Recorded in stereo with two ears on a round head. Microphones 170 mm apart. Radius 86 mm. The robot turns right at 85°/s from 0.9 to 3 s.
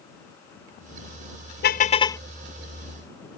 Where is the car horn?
120° left; by 2.2 s 170° left.